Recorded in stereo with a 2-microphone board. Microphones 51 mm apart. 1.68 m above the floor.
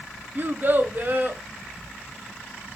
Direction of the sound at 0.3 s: 40° right (ahead or behind).